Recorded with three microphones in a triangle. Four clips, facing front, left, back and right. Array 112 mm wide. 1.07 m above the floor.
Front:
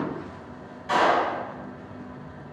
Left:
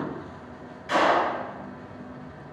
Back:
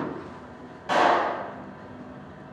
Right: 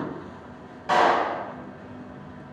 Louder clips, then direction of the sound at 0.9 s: Right 2 dB, even; 120° right.